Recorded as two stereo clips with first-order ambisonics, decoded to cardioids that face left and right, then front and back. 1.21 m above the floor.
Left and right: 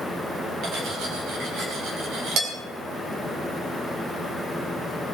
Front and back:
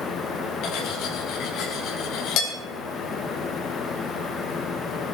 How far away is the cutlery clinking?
About 4.5 m.